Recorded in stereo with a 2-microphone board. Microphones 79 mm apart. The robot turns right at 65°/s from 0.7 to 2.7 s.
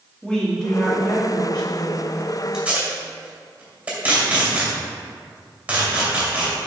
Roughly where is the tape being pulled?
Centre.